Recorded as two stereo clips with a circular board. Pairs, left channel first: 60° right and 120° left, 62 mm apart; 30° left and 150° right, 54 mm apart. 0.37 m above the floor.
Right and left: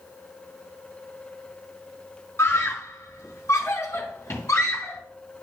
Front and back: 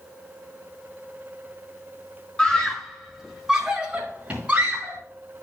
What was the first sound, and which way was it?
A scream, 35° right.